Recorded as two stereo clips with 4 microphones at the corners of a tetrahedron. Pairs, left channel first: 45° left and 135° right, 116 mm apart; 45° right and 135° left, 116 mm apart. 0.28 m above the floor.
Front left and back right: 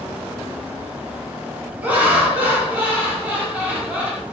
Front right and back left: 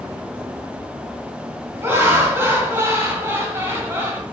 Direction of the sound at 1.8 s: 170° left.